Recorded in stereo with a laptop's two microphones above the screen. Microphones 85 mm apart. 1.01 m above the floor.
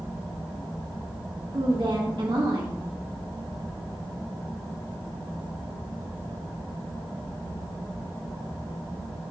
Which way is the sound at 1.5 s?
65° right (ahead or behind).